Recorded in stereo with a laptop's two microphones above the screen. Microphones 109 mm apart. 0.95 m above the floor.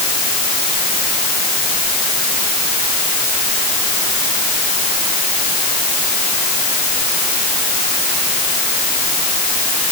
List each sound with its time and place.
Only background noise.